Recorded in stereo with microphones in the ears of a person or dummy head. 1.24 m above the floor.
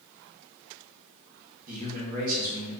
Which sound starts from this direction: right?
A man speaking, at 1.7 s.